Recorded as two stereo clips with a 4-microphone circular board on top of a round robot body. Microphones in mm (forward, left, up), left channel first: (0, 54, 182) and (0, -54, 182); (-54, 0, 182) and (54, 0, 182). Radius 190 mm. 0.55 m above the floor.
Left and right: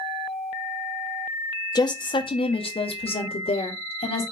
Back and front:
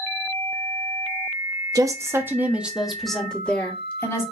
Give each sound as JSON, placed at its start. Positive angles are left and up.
{"t": 1.8, "sound": "a woman speaking", "azimuth_deg": 50, "distance_m": 1.2}